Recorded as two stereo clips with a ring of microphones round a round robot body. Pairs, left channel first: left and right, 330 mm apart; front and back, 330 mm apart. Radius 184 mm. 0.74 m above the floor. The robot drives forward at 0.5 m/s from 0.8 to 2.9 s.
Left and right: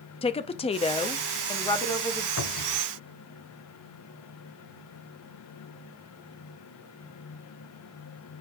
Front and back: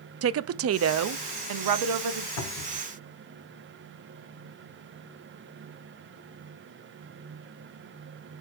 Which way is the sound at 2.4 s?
40° left.